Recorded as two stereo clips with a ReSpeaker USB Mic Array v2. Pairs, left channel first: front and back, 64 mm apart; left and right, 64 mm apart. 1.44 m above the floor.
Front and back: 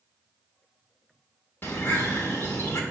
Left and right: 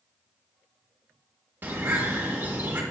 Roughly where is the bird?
Ahead right.